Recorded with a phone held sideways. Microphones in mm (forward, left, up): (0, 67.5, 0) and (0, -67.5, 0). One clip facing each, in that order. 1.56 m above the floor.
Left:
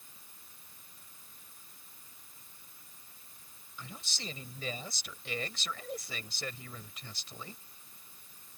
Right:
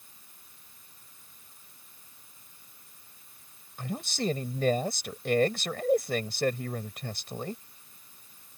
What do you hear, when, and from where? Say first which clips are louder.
3.8 s a man speaking: right 14 dB; 55° right (ahead or behind)